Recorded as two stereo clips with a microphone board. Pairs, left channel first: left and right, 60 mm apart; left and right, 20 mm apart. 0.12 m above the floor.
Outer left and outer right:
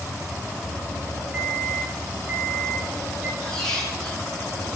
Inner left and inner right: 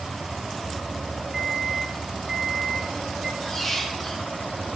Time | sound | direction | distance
1.3 | a microwave | 20° right (ahead or behind) | 8.5 m
3.4 | a squeak | 10° left (ahead or behind) | 4 m